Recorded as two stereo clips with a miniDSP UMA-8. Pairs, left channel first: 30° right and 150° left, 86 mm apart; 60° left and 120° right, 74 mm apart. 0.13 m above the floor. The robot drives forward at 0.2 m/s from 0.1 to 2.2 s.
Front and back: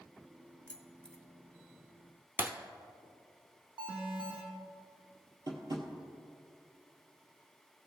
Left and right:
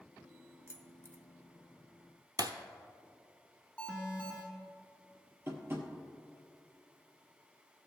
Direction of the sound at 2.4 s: 145° right.